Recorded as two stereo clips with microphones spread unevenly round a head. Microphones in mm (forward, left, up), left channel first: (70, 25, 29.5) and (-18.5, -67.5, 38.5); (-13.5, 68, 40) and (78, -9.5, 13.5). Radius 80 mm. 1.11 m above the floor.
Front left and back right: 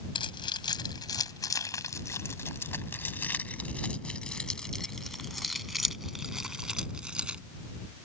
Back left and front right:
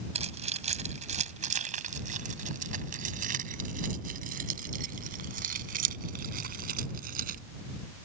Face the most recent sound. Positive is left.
turn(degrees=-50)